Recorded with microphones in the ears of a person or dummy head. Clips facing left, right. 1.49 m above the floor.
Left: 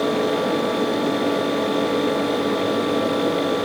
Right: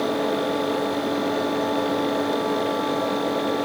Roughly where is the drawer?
I don't hear a drawer.